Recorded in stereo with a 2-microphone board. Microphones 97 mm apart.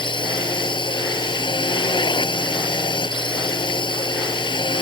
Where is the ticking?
I don't hear ticking.